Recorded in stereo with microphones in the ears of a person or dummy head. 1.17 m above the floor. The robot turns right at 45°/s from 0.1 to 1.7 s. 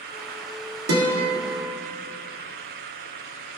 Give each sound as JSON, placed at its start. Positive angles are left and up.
{"t": 0.9, "sound": "a guitar", "side_deg": -85, "distance_m": 1.9}